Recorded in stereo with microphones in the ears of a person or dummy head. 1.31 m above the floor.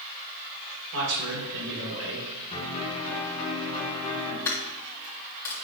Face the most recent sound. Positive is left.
turn(degrees=20)  # may be behind; listen again after turning